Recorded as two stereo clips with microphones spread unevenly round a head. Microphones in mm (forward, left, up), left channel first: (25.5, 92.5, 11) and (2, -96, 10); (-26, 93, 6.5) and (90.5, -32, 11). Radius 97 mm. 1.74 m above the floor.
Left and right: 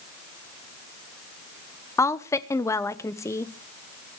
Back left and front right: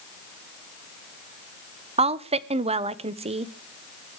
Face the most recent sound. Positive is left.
turn(degrees=5)